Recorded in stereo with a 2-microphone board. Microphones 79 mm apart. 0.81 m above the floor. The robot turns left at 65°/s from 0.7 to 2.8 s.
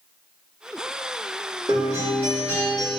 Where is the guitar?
110° right, 2.0 m; by 3.0 s 175° left, 2.0 m.